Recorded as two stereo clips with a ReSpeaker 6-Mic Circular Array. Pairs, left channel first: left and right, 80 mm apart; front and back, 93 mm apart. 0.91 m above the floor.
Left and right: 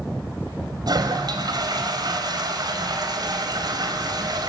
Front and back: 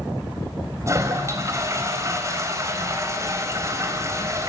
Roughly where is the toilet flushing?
Behind right.